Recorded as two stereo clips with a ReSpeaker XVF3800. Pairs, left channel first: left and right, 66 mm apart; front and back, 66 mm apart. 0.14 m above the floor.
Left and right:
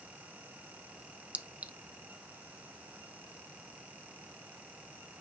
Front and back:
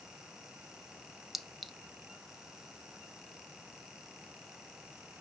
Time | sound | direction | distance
1.3 | a clink | 90° right | 0.7 m